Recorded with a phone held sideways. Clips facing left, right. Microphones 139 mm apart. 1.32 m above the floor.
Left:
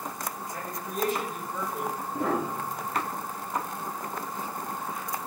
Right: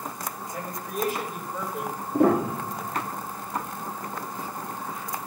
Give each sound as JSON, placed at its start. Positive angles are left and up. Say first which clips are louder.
{"t": 0.5, "sound": "a man speaking", "louder": "right 3 dB", "side_deg": -10, "distance_m": 6.0}
{"t": 2.1, "sound": "a piano", "louder": "right 9 dB", "side_deg": -65, "distance_m": 1.2}